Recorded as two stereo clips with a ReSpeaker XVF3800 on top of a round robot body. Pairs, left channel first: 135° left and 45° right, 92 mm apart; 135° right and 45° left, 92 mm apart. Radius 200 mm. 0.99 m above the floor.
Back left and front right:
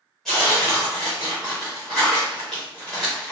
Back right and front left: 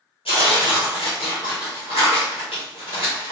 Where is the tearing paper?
140° right, 0.7 m.